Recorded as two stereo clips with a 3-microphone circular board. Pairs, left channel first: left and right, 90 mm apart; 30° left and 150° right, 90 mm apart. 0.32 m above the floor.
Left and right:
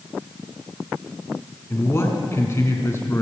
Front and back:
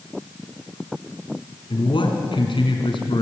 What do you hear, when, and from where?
1.7 s a man speaking: 30° left, 4 m